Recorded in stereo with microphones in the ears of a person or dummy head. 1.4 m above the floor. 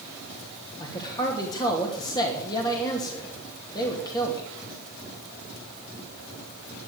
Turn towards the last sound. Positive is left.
turn(degrees=25)  # may be behind; listen again after turning